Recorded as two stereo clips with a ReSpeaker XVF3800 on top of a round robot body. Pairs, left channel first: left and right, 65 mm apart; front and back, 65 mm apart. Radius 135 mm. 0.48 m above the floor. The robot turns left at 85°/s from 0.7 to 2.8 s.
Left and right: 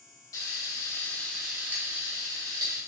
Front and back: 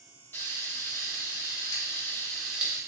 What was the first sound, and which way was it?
Frying, 60° left.